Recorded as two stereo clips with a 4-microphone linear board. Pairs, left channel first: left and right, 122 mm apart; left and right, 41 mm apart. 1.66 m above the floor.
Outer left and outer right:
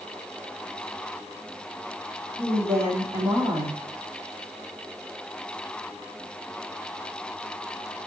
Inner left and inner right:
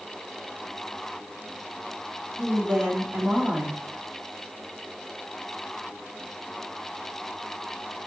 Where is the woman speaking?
5° right (ahead or behind), 2.5 m.